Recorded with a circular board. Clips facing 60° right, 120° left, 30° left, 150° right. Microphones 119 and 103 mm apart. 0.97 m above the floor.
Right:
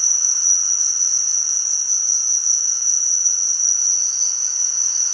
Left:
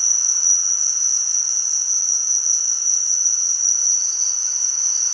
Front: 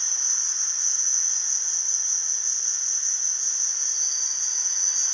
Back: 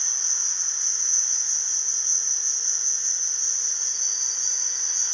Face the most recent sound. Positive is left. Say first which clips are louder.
# even, even
turn(degrees=150)